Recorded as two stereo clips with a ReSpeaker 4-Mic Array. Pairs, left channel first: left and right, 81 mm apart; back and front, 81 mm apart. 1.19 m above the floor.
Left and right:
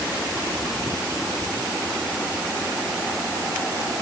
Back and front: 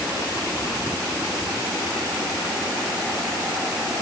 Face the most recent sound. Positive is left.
No sound to turn to.